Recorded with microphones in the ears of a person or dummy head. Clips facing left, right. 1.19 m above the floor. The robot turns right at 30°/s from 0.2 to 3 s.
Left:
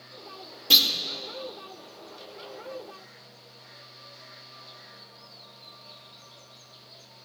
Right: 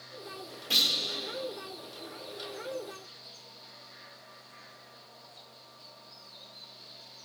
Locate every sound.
0.7 s a clunk: 60° left (ahead or behind), 1.3 m; by 0.9 s 65° left (ahead or behind), 1.3 m